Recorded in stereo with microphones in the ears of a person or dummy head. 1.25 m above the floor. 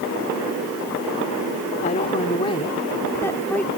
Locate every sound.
1.8 s a woman speaking: 40° left (ahead or behind); by 3.7 s 5° left (ahead or behind)